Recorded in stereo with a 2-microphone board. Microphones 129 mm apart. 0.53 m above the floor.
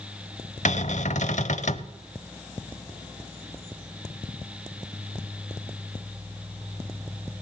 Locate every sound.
0.7 s a cupboard door: 70° left (ahead or behind), 0.7 m